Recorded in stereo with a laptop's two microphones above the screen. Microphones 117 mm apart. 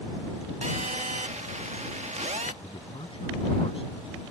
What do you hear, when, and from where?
0.6 s a phone buzzing: 80° right
2.6 s a man speaking: 55° left (ahead or behind)